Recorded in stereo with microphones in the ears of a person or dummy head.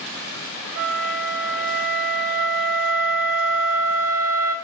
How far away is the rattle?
No rattle in this recording.